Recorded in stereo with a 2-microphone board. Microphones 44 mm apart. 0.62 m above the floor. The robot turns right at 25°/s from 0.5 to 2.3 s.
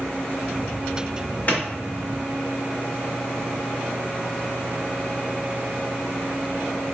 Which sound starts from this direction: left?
A clap, at 1.5 s.